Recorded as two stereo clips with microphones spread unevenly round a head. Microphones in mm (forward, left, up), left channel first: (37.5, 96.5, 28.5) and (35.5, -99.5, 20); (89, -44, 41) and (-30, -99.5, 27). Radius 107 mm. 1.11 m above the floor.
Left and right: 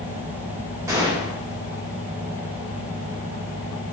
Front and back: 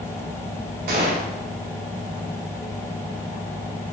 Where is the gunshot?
165° right, 1.8 m.